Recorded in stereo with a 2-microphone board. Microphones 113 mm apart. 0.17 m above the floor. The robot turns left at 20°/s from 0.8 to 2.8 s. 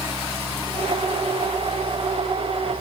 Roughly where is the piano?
I don't hear a piano.